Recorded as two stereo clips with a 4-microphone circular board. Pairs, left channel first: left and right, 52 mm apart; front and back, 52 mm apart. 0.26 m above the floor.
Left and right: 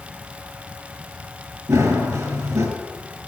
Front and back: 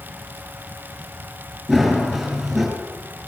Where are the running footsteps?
85° right, 6 m.